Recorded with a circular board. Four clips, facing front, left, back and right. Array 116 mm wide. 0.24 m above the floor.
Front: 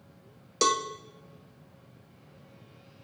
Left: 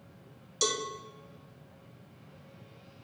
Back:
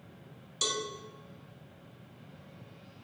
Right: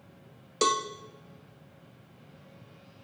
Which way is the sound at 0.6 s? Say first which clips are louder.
Right 6 dB, front 10 dB; 45° right.